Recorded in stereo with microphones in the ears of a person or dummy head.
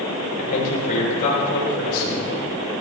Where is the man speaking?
45° left (ahead or behind), 7 m.